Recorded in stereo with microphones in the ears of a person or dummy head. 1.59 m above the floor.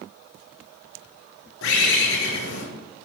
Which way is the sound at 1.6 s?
65° left (ahead or behind).